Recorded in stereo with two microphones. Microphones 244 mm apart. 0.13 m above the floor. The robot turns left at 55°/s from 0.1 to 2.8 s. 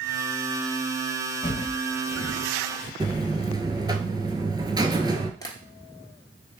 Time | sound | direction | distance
1.4 | footsteps | 30° left (ahead or behind) | 1.2 m
3.0 | a buzzer | 20° right (ahead or behind) | 0.6 m
5.4 | tapping | 15° left (ahead or behind) | 1.1 m